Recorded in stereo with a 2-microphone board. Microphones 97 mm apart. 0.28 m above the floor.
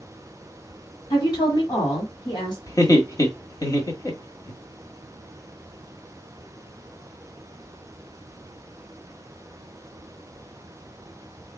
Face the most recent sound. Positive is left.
turn(degrees=40)  # may be behind; listen again after turning